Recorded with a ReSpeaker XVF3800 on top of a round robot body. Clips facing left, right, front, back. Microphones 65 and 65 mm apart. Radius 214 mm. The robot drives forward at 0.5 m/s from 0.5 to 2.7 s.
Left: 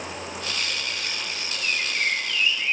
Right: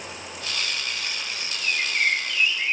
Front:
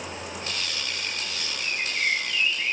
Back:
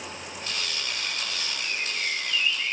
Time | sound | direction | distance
1.6 | a bird | 35° right | 1.5 m